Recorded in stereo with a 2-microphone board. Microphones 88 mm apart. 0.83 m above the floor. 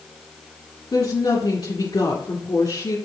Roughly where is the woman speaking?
Left.